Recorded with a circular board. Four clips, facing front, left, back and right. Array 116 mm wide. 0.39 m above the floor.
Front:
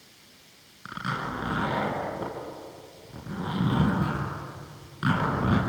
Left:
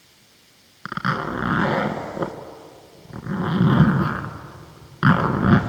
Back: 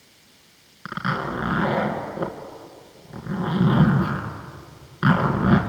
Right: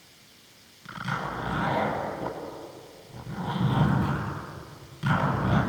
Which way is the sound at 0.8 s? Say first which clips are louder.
Left 7 dB, back 6 dB; 110° left.